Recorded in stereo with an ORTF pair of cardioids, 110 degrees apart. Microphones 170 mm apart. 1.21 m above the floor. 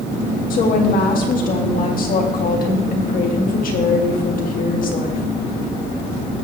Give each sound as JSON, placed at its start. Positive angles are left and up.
{"t": 0.5, "sound": "a woman speaking", "azimuth_deg": 55, "distance_m": 2.0}